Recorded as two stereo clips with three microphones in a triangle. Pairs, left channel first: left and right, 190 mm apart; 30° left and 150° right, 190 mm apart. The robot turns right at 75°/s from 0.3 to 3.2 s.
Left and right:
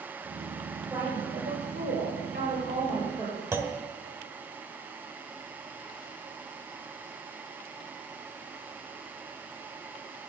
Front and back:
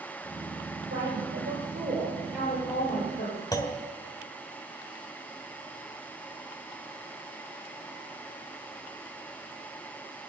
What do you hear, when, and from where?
0.9 s a woman speaking: straight behind, 6 m; by 3.4 s 10° right, 6 m
3.5 s a clunk: 25° right, 1.2 m